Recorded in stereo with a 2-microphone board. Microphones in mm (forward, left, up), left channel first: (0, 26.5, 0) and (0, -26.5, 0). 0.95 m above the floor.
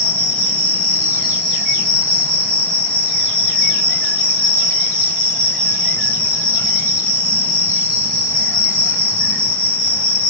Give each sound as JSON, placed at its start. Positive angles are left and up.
{"t": 0.0, "sound": "an insect", "side_deg": 20, "distance_m": 2.0}